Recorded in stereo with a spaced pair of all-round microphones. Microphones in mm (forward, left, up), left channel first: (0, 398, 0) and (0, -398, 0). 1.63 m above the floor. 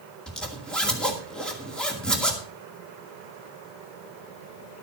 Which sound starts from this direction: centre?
A zipper, at 0.3 s.